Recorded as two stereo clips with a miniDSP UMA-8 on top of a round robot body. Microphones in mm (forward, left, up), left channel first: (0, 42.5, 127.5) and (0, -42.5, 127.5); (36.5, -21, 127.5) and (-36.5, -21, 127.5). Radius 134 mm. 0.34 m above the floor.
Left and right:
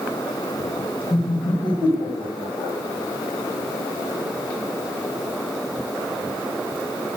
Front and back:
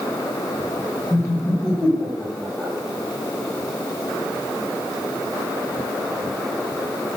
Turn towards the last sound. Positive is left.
turn(degrees=90)